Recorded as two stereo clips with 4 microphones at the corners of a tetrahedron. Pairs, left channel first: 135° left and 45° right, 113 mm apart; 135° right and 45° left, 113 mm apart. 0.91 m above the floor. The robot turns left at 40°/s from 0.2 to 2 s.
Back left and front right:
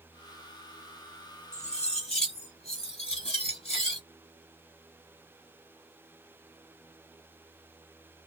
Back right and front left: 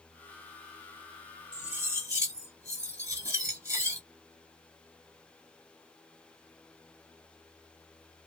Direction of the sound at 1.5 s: 130° left.